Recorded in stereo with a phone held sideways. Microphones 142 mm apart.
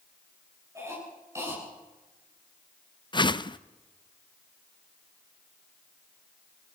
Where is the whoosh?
35° left (ahead or behind), 0.6 m.